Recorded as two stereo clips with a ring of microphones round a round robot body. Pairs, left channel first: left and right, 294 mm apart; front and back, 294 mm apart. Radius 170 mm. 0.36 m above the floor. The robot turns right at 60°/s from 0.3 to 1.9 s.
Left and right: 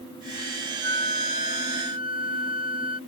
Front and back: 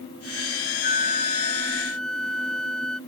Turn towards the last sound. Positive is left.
turn(degrees=85)